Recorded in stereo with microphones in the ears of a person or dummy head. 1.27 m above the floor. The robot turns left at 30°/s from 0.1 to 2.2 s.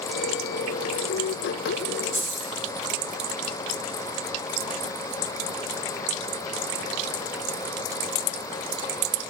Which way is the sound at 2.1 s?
70° left (ahead or behind).